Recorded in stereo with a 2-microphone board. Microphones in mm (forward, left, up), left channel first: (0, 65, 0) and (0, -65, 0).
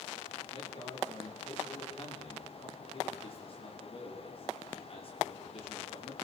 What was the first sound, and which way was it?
A man speaking, 50° left (ahead or behind).